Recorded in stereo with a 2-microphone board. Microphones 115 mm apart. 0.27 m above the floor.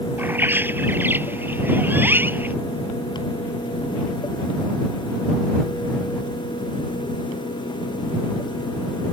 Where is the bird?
20° right (ahead or behind).